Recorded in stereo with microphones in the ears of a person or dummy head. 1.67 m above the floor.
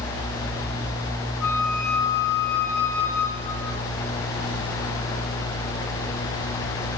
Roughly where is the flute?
Centre.